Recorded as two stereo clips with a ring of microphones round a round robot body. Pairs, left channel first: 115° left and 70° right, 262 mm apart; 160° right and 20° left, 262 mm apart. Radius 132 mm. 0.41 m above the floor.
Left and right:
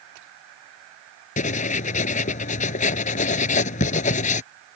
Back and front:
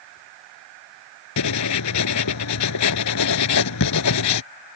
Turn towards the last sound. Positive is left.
turn(degrees=175)